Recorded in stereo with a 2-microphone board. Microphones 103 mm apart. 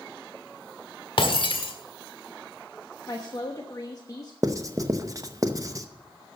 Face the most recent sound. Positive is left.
turn(degrees=-35)  # may be behind; listen again after turning